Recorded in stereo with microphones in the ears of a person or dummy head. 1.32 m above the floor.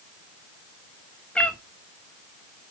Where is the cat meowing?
5° left (ahead or behind), 0.8 m.